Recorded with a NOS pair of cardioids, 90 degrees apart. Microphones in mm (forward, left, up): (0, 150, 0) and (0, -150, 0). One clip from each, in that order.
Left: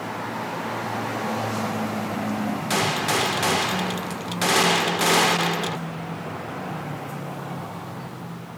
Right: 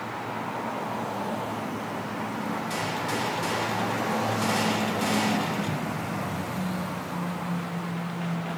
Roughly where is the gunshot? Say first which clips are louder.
Left 9 dB; ahead left.